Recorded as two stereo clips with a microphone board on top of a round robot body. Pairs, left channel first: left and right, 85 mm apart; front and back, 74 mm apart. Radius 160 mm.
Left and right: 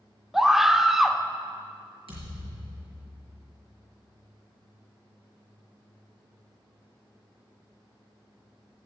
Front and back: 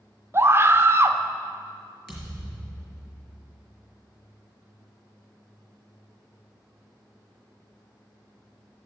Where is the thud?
90° right, 4.5 m.